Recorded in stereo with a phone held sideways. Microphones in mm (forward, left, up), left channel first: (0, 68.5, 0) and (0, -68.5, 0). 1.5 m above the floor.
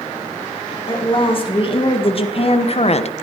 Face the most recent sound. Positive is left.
turn(degrees=50)  # may be behind; listen again after turning